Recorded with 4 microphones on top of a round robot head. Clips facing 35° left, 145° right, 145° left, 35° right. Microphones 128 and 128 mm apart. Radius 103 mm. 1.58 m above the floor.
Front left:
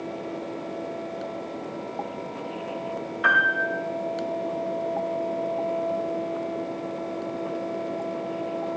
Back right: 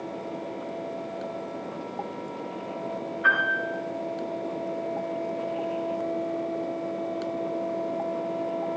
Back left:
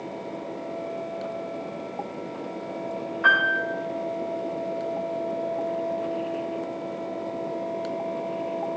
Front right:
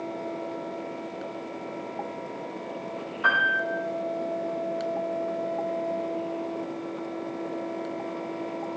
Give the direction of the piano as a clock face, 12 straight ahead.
11 o'clock.